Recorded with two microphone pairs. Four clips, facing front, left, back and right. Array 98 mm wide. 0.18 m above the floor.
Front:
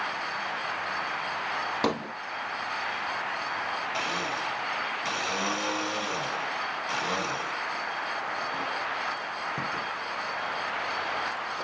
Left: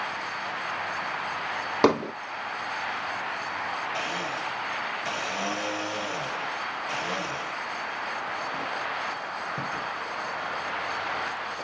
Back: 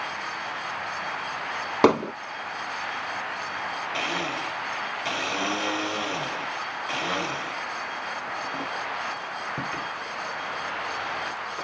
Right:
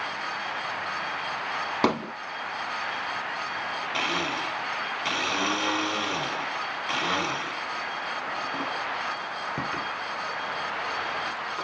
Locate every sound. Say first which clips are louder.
1.8 s hammering: left 4 dB, back 12 dB; 170° left, 1.1 m
3.9 s a blender: right 2 dB, back 1 dB; 105° right, 1.3 m